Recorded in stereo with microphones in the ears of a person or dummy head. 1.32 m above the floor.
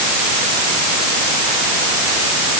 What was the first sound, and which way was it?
Only background noise.